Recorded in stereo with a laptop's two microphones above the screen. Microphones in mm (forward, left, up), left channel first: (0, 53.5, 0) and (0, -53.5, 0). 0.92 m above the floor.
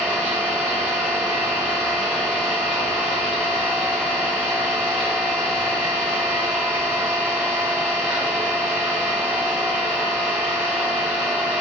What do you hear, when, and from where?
0.0 s an engine running: 10° right (ahead or behind), 0.9 m